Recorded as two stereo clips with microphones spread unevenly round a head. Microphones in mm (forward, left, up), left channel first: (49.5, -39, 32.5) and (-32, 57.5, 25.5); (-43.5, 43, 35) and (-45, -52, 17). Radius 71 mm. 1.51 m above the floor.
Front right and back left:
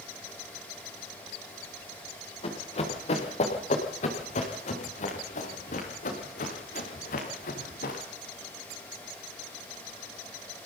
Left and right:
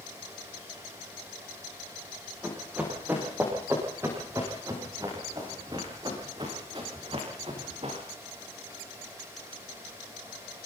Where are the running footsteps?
10° right, 8.5 m; by 8.0 s 40° right, 7 m.